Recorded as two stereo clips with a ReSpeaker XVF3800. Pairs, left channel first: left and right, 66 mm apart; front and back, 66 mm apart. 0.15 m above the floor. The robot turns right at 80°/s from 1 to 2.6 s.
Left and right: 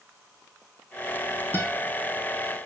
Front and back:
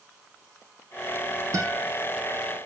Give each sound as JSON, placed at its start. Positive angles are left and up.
{"t": 1.5, "sound": "a guitar", "azimuth_deg": 145, "distance_m": 2.5}